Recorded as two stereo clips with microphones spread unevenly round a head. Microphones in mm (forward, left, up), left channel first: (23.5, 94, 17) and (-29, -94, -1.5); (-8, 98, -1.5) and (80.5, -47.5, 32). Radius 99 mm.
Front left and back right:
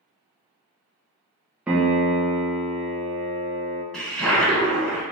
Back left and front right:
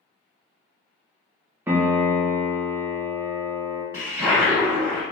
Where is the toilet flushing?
5° right, 1.3 m.